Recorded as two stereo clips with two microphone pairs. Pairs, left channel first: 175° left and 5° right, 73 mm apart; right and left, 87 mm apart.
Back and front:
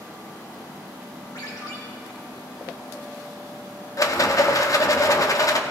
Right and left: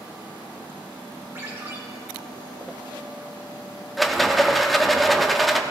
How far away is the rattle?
About 0.7 m.